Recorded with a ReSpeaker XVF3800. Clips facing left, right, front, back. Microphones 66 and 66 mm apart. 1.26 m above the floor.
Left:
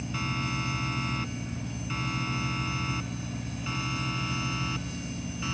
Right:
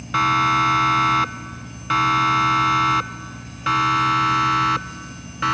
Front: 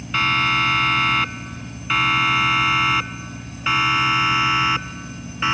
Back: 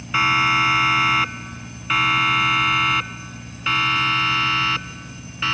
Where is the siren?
100° right; by 5.5 s 75° right.